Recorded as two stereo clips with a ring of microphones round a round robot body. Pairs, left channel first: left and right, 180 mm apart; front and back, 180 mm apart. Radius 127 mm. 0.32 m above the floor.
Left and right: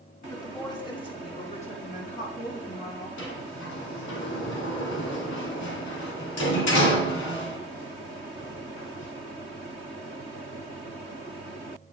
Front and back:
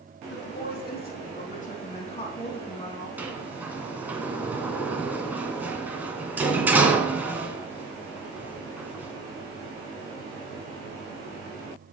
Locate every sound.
0.3 s a woman speaking: 20° left, 3.5 m; by 3.1 s 65° left, 3 m
3.2 s a sliding door: 100° left, 2.0 m